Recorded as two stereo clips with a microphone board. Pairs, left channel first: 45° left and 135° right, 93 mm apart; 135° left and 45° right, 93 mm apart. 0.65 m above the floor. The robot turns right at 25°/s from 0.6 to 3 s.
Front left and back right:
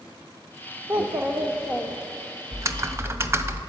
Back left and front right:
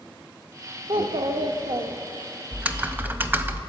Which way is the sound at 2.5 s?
110° right.